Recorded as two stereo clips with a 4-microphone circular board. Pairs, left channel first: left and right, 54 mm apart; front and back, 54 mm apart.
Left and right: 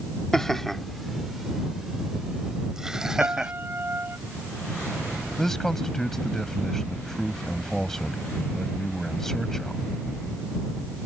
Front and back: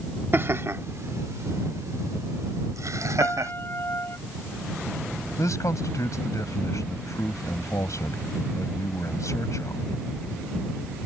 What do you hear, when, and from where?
0.3 s laughter: 170° left; by 3.5 s 170° right
3.2 s a piano: 45° right
5.4 s a man speaking: 5° left